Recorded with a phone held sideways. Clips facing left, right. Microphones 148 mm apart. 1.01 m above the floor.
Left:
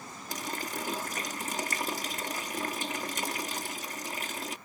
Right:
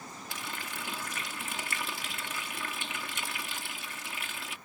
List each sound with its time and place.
0.3 s a running tap: 45° left (ahead or behind)